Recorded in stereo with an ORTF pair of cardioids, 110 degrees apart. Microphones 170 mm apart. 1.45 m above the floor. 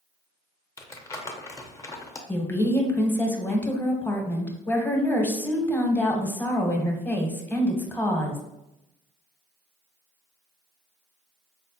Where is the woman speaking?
10° left, 0.8 m.